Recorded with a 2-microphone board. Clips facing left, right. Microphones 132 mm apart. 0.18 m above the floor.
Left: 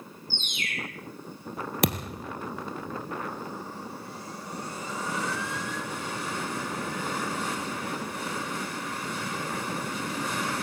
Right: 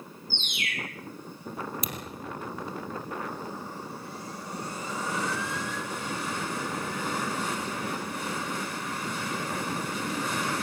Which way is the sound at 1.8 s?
70° left (ahead or behind).